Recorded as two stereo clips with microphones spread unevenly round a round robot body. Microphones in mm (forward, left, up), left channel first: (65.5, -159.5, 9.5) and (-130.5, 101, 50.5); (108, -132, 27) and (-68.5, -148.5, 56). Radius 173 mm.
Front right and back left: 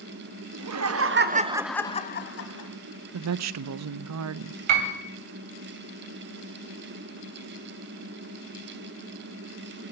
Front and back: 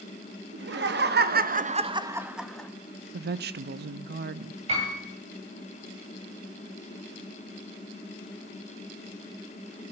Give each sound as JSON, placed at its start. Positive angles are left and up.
{"t": 0.5, "sound": "laughter", "azimuth_deg": 160, "distance_m": 1.8}
{"t": 3.1, "sound": "a woman speaking", "azimuth_deg": 165, "distance_m": 0.5}
{"t": 4.7, "sound": "a piano", "azimuth_deg": 115, "distance_m": 2.5}